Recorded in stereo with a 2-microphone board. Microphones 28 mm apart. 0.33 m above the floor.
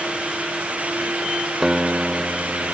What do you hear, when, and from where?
1.6 s a guitar: 15° right (ahead or behind)